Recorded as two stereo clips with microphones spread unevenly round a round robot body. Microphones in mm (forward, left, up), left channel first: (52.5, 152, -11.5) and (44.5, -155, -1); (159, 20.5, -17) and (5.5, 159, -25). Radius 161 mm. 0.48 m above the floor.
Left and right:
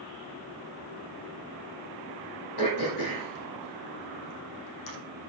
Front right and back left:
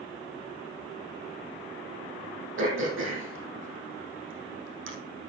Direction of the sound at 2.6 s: 125° left.